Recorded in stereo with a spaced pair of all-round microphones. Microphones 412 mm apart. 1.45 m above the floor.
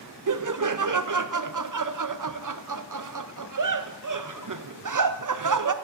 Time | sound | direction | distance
0.3 | laughter | 50° right (ahead or behind) | 0.5 m